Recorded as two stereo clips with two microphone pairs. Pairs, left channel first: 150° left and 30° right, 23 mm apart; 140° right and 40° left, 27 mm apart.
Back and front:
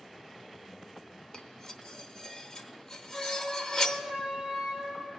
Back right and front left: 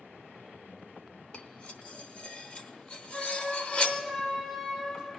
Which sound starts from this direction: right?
A flute, at 3.1 s.